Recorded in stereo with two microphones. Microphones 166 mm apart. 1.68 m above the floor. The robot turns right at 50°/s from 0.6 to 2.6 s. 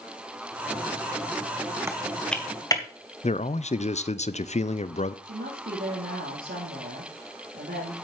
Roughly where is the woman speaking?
Right.